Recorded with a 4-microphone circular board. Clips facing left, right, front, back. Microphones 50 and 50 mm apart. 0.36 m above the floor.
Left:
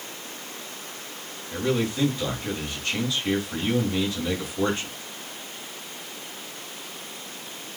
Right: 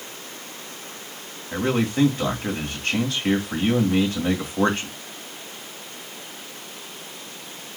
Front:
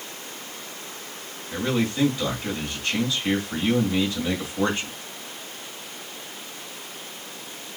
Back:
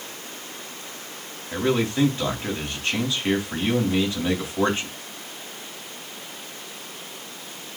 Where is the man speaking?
115° right, 3 m.